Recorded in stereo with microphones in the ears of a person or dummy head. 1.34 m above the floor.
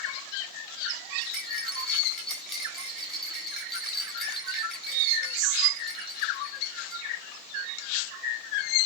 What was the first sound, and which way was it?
A rattle, centre (ahead or behind).